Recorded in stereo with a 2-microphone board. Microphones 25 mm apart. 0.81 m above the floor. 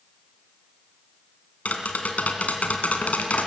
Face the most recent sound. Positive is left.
turn(degrees=80)